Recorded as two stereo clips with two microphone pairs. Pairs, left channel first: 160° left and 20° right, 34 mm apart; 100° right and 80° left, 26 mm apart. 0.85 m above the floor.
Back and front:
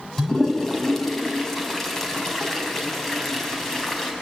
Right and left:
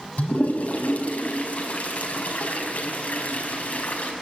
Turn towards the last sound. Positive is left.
turn(degrees=-120)